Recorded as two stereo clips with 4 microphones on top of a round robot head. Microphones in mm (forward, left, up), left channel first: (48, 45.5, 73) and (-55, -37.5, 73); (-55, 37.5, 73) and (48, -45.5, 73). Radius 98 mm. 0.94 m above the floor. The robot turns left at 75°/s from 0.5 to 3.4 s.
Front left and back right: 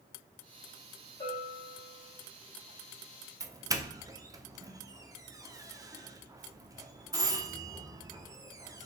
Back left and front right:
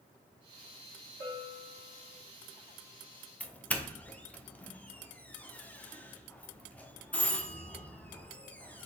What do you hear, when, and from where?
1.2 s a bell: 20° right, 3 m; by 2.1 s 85° right, 3 m
3.4 s a doorbell: 155° right, 0.7 m